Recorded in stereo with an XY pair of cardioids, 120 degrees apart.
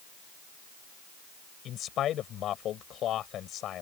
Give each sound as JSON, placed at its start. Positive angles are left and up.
{"t": 1.6, "sound": "a man speaking", "azimuth_deg": 60}